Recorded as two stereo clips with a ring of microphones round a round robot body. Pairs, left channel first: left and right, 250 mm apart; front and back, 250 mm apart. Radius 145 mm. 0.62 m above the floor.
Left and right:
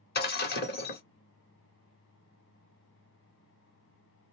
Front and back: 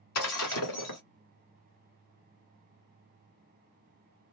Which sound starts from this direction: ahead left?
Breaking glass, at 0.1 s.